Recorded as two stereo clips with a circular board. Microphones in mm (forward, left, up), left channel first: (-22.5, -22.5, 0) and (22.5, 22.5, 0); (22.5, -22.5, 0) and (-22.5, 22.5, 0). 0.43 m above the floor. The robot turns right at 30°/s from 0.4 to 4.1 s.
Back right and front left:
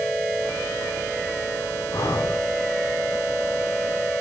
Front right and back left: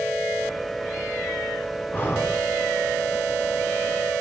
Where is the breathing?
110° right, 3 m; by 2.4 s 95° right, 3 m.